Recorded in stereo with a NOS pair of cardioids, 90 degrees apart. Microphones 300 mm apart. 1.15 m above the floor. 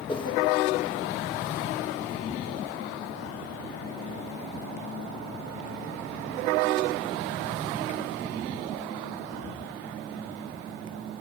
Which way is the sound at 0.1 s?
15° left.